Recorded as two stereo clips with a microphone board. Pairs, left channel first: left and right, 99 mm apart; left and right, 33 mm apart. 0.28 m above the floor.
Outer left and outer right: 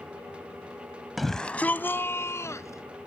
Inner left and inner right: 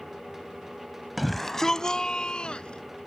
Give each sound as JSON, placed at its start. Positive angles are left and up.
{"t": 1.2, "sound": "a shout", "side_deg": 0}